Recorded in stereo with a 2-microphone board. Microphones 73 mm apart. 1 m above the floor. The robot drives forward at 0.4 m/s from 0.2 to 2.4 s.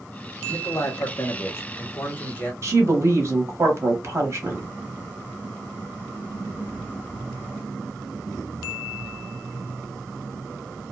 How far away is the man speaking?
About 0.6 m.